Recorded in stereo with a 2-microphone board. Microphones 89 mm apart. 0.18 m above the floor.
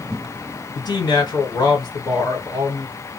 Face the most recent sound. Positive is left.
turn(degrees=50)  # may be behind; listen again after turning